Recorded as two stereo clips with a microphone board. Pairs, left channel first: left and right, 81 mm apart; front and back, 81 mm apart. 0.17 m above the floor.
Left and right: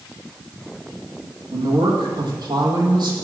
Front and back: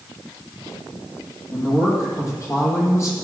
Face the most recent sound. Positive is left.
turn(degrees=-55)